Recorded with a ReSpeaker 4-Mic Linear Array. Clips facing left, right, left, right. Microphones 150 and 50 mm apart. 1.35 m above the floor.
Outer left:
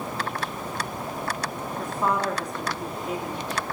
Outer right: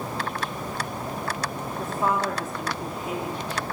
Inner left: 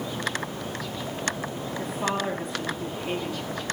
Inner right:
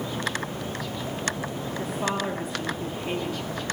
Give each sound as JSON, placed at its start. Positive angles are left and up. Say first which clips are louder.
{"t": 1.8, "sound": "a woman speaking", "louder": "even, even", "side_deg": -5, "distance_m": 3.0}